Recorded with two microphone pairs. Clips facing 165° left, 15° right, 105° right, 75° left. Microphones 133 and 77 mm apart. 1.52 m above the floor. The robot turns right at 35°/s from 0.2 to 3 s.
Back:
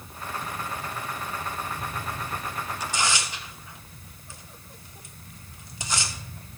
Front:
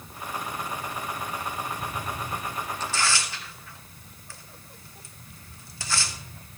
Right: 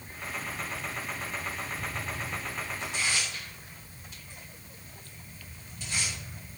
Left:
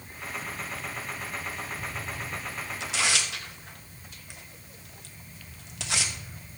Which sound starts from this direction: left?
Tearing paper, at 2.8 s.